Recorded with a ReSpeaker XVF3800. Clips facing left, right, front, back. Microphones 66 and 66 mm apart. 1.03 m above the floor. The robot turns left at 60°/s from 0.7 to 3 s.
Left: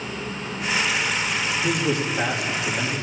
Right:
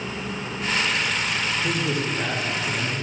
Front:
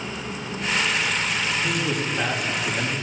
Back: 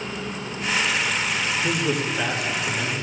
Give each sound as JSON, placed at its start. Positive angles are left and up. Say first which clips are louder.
{"t": 1.6, "sound": "a man speaking", "louder": "left 2 dB, back 1 dB", "azimuth_deg": 115, "distance_m": 1.4}